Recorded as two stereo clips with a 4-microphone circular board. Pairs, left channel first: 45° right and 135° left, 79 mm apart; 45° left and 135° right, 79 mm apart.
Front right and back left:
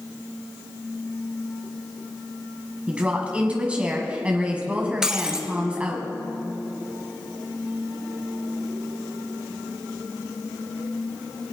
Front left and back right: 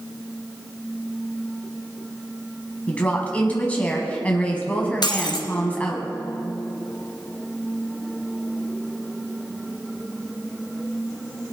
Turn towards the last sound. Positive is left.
turn(degrees=55)